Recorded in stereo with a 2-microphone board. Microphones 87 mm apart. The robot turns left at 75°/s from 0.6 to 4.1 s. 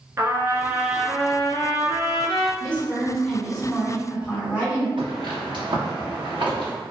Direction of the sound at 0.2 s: 145° right.